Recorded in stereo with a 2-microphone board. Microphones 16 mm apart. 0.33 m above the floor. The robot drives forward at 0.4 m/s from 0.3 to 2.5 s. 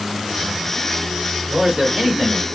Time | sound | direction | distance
1.5 | a man speaking | 25° right (ahead or behind) | 1.1 m